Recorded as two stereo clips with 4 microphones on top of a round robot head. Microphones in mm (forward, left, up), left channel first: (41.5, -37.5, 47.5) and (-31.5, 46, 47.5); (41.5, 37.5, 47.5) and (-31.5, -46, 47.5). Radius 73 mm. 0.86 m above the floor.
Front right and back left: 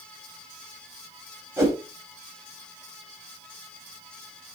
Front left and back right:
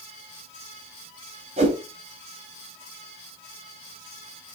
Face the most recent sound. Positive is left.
turn(degrees=-160)